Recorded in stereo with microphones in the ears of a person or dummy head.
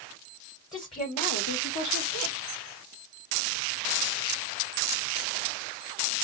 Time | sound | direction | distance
0.7 | a woman speaking | 25° left (ahead or behind) | 1.3 m